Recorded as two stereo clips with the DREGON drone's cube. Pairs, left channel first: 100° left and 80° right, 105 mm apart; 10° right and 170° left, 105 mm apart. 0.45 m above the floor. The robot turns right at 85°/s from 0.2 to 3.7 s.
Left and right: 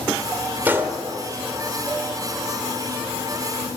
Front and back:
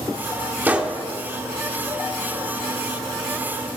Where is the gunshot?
135° right, 1.6 m; by 1.0 s 105° right, 1.6 m.